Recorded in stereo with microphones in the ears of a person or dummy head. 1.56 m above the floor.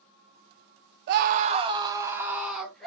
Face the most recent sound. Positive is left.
turn(degrees=5)  # may be behind; listen again after turning